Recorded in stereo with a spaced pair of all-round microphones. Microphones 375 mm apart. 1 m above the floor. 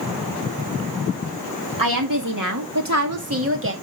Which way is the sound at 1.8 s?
60° right (ahead or behind).